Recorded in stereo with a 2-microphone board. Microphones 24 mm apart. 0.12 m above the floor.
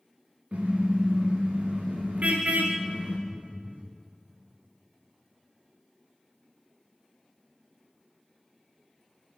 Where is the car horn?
65° right (ahead or behind), 5.5 m; by 3.2 s 85° right, 5 m.